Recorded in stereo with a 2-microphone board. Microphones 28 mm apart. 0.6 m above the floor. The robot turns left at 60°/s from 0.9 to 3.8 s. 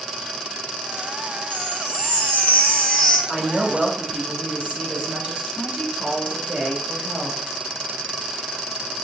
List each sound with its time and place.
1.5 s a chime: 115° left, 1.2 m; by 3.2 s 15° left, 1.2 m
3.3 s a woman speaking: 25° right, 2 m; by 7.4 s 55° right, 2 m